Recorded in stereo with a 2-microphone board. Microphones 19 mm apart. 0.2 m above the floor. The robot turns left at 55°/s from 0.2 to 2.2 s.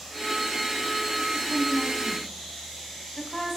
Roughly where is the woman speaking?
Centre.